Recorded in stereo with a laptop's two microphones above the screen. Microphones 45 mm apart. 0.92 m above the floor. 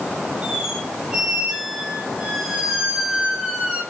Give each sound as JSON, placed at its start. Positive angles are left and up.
{"t": 0.4, "sound": "a squeak", "side_deg": -15, "distance_m": 1.2}